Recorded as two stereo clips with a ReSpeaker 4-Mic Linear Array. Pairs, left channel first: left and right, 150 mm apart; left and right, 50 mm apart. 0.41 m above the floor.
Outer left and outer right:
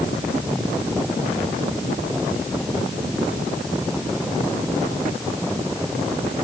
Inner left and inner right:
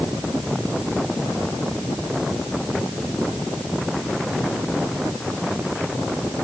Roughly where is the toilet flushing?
I don't hear a toilet flushing.